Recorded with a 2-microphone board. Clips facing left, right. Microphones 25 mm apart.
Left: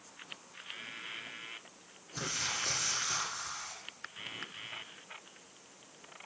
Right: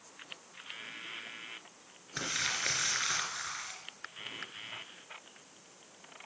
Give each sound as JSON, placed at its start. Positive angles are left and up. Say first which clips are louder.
{"t": 2.2, "sound": "crumpling", "louder": "right 2 dB", "side_deg": -50, "distance_m": 2.0}